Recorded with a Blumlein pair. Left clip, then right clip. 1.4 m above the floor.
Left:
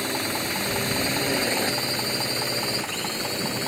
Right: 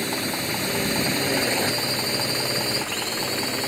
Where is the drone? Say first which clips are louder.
Even; 5° right; by 3.7 s 10° right.